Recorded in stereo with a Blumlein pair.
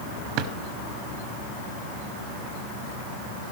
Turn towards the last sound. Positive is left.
turn(degrees=-40)